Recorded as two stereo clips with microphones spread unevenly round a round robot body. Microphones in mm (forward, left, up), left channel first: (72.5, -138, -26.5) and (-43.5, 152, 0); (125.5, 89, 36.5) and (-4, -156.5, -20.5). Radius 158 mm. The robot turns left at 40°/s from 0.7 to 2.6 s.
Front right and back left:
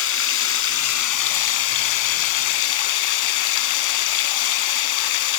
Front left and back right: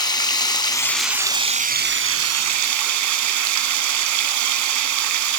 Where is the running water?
15° right, 1.4 m; by 5.4 s 90° right, 1.4 m.